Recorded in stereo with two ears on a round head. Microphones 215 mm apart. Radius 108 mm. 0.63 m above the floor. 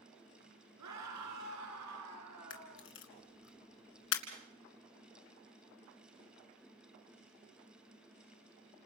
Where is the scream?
80° right, 10 m; by 2.9 s 75° right (ahead or behind), 10.5 m.